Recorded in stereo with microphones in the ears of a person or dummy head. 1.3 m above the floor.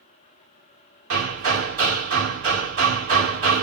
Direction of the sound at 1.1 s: 40° right (ahead or behind).